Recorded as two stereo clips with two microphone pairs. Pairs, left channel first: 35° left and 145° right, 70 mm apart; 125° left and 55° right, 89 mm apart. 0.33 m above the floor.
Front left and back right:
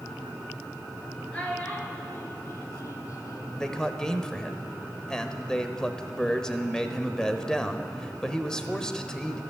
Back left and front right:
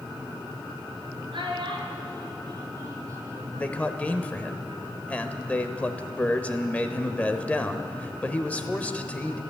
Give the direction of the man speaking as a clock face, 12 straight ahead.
9 o'clock.